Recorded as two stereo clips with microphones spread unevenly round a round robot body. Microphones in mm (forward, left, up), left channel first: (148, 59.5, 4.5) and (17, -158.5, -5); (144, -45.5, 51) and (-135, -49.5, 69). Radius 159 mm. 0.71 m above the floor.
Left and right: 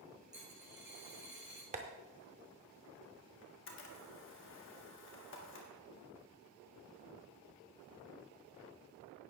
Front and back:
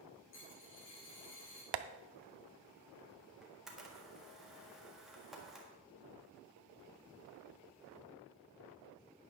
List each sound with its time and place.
0.3 s a dropped coin: 45° right, 6 m
1.7 s tapping: 170° left, 0.5 m
3.4 s a camera shutter: 90° left, 1.5 m